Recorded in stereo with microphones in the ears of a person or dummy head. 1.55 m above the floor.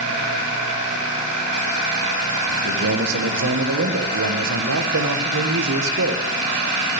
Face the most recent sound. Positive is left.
turn(degrees=-75)  # may be behind; listen again after turning